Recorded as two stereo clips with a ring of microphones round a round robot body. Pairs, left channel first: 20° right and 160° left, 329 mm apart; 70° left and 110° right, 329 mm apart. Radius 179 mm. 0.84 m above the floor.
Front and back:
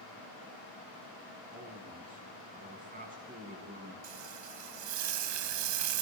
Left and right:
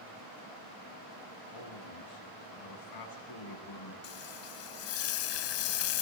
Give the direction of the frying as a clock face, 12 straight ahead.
8 o'clock.